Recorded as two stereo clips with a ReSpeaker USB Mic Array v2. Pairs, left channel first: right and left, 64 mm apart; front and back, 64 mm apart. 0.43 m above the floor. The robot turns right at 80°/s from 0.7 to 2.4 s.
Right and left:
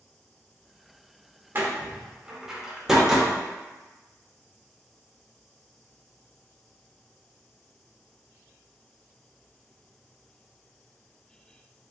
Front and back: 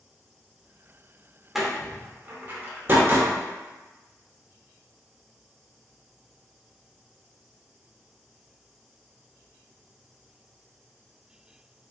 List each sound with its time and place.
1.6 s a door slam: 95° left, 0.5 m; by 3.3 s 165° left, 0.5 m